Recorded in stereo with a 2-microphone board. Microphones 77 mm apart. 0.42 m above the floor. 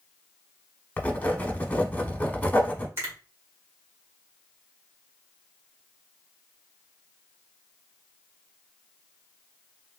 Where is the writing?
20° left (ahead or behind), 0.9 m.